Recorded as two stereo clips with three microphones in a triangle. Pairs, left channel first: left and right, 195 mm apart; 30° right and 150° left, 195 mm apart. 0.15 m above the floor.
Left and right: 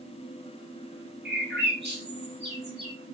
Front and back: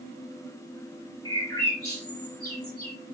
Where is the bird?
100° right, 2 m.